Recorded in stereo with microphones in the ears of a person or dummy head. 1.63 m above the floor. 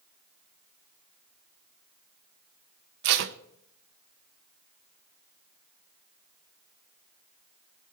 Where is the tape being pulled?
50° right (ahead or behind), 0.8 m.